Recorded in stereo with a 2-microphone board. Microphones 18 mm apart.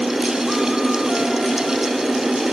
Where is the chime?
No chime in this recording.